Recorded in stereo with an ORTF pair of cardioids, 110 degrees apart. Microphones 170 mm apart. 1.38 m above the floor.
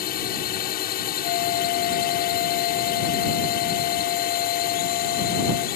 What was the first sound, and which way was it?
A drone, 70° left.